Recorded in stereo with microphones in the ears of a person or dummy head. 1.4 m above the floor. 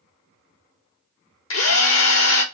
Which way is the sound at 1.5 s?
75° left (ahead or behind).